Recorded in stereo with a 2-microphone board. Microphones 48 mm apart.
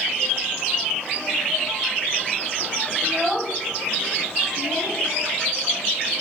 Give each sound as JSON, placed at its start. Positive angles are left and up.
{"t": 3.0, "sound": "a child speaking", "side_deg": -25, "distance_m": 0.8}